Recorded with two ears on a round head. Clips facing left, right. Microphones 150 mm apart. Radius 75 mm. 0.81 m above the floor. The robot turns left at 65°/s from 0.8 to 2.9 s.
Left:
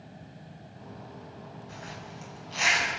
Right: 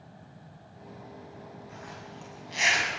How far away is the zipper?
About 6.5 m.